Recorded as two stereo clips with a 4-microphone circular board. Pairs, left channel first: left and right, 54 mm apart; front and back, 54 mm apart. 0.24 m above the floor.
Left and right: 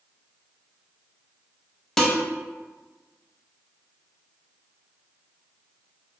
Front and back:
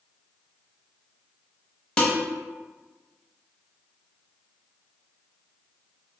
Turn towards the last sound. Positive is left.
turn(degrees=25)